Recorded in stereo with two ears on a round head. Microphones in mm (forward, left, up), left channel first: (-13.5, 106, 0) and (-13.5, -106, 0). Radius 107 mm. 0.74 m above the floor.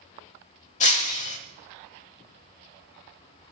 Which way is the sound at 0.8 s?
30° left (ahead or behind).